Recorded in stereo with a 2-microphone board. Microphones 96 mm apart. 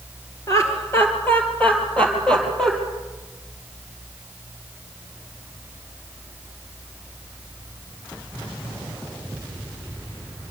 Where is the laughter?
35° left (ahead or behind), 3.5 m; by 2.7 s 5° left (ahead or behind), 5 m.